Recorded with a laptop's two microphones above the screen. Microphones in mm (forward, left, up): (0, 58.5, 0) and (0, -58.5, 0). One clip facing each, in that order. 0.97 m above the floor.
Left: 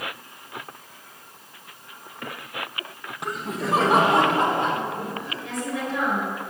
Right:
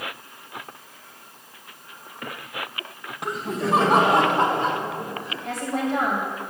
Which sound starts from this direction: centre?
Laughter, at 3.2 s.